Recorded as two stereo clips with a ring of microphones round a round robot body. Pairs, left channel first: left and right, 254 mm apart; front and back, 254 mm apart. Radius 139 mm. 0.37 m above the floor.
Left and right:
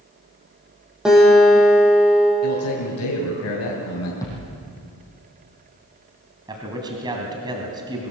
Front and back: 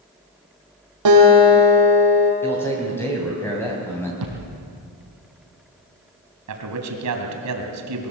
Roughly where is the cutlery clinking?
I don't hear cutlery clinking.